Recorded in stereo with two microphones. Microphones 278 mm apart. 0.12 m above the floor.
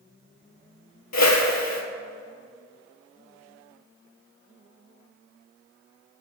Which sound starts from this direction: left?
A whoosh, at 1.1 s.